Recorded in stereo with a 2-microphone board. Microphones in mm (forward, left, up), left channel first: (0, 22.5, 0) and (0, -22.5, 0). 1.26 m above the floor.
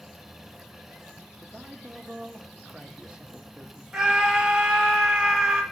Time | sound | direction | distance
1.4 | a man speaking | 20° right (ahead or behind) | 0.7 m
3.9 | a scream | 10° right (ahead or behind) | 1.7 m